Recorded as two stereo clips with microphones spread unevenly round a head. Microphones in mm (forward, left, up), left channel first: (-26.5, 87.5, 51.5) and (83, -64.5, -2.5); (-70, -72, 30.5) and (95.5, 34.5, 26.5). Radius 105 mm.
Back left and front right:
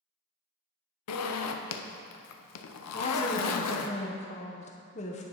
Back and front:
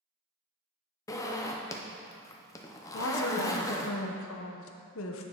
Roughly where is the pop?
No pop in this recording.